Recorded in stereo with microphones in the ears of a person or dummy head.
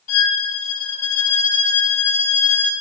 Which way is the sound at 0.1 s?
55° left (ahead or behind).